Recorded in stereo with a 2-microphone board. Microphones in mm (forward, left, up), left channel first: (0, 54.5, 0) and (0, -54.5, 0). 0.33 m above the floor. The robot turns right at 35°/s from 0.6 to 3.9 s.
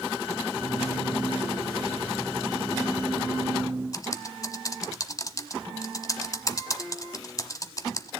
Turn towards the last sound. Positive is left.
turn(degrees=30)  # may be behind; listen again after turning